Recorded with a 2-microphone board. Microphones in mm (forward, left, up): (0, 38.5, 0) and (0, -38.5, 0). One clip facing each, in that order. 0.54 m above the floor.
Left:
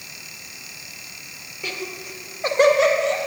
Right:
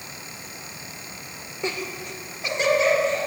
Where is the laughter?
25° right (ahead or behind), 1.3 m; by 3.2 s 70° left (ahead or behind), 1.9 m.